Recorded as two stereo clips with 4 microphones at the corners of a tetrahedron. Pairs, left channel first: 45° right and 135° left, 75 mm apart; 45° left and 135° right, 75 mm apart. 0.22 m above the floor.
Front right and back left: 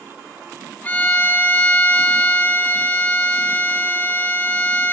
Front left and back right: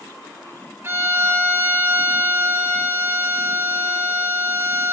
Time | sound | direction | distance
0.8 | a violin | 95° right | 1.1 m